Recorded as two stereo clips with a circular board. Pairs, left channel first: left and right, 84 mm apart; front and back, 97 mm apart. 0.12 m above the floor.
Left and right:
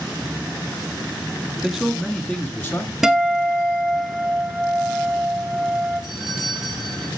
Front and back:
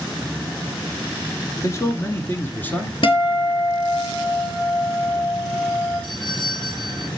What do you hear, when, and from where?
1.6 s a man speaking: 10° right, 1.4 m; by 2.9 s 65° left, 1.5 m
3.0 s a guitar: 5° right, 1.5 m
6.0 s a doorbell: 10° right, 3 m